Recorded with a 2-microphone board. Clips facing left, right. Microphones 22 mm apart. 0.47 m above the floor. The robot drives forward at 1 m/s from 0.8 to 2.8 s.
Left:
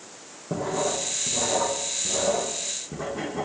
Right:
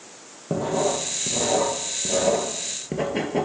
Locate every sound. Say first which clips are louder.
0.5 s writing: right 3 dB; 40° right (ahead or behind), 3 m; by 3.5 s 80° right, 2 m